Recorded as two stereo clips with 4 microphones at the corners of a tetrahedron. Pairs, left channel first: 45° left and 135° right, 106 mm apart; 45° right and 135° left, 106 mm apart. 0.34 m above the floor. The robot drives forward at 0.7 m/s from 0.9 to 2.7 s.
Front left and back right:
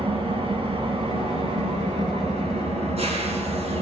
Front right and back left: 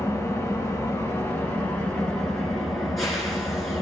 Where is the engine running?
110° right, 2.5 m; by 3.8 s 135° right, 3 m.